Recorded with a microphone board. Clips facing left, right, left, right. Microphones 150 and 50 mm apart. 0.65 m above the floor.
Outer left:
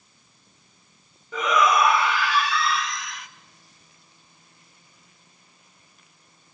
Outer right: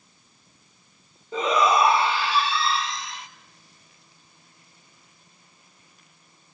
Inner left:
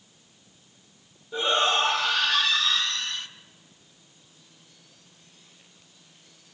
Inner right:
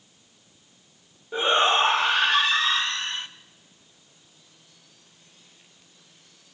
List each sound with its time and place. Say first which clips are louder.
1.3 s a shout: even, inner right 3 dB; 30° right (ahead or behind), 0.9 m